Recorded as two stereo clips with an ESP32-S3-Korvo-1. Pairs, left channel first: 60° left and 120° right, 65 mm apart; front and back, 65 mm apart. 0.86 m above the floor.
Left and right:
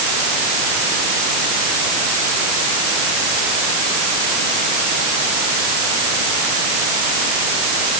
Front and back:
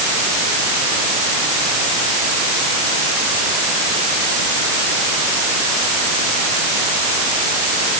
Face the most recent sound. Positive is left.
No sound to turn to.